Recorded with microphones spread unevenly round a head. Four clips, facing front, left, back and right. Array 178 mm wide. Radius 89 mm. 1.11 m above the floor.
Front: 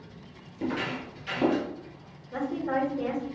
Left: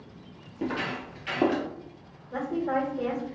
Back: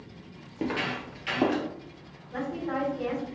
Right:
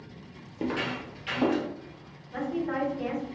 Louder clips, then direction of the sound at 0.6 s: Even, even; 165° right.